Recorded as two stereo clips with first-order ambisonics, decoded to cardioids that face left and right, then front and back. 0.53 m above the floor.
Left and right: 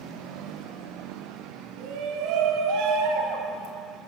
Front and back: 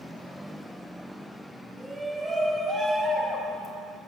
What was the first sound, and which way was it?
A shout, 100° right.